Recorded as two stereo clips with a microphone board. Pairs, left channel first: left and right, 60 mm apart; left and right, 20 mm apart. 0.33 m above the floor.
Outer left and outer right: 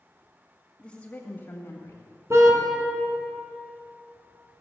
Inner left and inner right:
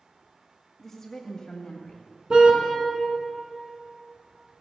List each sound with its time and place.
0.8 s a woman speaking: 15° left (ahead or behind), 1.5 m; by 2.1 s 55° left (ahead or behind), 1.8 m
2.3 s a car horn: 50° right (ahead or behind), 2 m